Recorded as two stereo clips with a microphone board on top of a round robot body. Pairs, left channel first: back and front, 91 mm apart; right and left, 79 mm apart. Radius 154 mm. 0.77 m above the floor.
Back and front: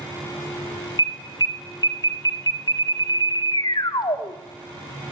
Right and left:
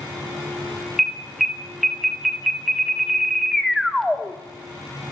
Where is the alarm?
Straight behind, 1.5 m.